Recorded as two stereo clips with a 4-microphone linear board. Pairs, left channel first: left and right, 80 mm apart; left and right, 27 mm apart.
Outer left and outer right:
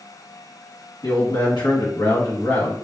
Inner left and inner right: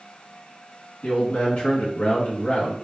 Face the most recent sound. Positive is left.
turn(degrees=65)  # may be behind; listen again after turning